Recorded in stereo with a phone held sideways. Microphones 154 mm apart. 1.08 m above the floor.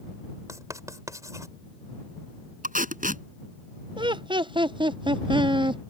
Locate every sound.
0.5 s writing: 20° right (ahead or behind)
2.6 s tape being pulled: 60° right (ahead or behind)
4.0 s laughter: 30° right (ahead or behind)